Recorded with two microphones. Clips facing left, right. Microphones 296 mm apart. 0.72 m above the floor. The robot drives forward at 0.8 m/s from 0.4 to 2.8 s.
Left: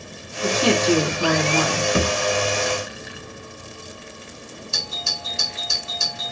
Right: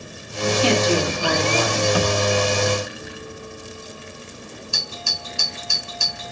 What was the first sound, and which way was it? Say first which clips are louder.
A woman speaking: even; 55° left (ahead or behind).